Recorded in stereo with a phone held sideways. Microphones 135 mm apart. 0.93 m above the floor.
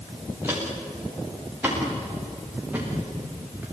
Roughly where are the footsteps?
Centre.